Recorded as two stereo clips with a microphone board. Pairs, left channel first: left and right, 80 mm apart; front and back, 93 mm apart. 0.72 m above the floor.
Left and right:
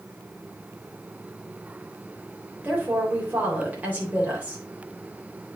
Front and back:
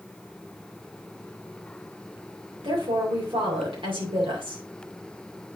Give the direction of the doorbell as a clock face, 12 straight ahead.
No doorbell in this recording.